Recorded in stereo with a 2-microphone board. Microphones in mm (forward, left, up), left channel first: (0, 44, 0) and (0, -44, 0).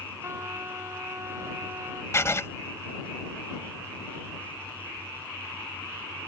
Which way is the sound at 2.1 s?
35° left (ahead or behind).